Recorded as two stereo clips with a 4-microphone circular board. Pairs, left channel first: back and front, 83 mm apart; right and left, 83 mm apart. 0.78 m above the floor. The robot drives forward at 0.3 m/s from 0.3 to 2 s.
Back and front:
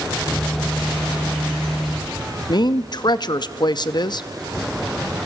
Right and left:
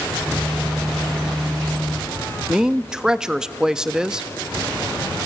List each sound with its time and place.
2.5 s a woman speaking: 170° left, 0.6 m